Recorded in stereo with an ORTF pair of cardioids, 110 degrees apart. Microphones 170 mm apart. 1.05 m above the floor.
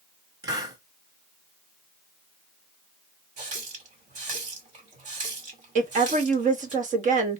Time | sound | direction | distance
0.4 | a hiss | 25° right | 1.8 m
3.4 | a running tap | 45° right | 2.0 m
5.8 | a woman speaking | 50° right | 1.5 m